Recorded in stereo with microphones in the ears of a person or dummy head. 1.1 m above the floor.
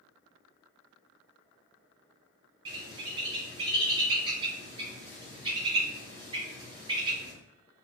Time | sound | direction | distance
2.6 | a bird | 25° right (ahead or behind) | 2 m